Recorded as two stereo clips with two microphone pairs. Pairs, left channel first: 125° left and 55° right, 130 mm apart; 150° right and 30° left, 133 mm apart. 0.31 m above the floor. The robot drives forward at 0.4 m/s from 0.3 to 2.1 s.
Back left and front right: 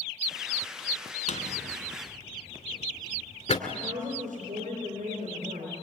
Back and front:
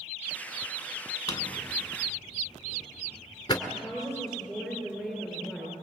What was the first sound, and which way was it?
A drawer, 150° left.